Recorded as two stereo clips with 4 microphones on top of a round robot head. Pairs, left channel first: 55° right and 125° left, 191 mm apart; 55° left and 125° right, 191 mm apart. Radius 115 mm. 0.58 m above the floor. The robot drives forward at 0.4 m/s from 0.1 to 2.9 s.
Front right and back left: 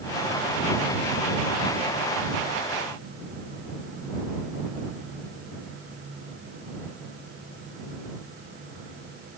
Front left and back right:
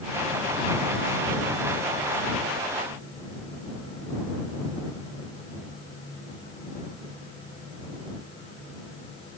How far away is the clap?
No clap in this recording.